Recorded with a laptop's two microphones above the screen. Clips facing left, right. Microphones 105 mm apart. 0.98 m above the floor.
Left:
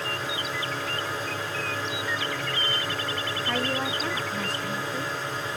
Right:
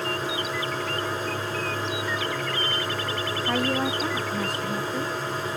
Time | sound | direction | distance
0.0 | a machine running | 30° right (ahead or behind) | 2.0 m
3.4 | a woman speaking | 10° right (ahead or behind) | 0.5 m